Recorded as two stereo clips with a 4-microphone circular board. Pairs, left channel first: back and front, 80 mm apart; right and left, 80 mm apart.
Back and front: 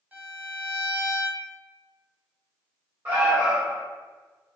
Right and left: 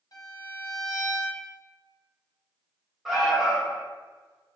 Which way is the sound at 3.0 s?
Straight ahead.